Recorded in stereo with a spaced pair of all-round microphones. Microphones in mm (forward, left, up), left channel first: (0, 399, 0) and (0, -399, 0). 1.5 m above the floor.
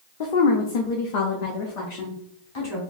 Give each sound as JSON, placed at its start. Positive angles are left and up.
{"t": 0.2, "sound": "a woman speaking", "side_deg": 75, "distance_m": 0.8}